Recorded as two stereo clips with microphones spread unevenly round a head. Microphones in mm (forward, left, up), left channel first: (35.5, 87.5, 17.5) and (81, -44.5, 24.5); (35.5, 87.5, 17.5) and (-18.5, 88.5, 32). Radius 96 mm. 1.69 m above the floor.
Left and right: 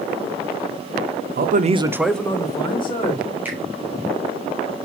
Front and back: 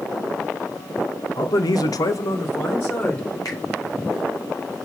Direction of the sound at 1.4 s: 50° right.